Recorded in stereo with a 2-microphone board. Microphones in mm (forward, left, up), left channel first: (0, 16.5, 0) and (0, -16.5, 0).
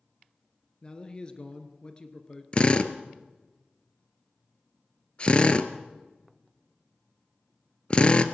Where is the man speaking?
25° left (ahead or behind), 1.9 m.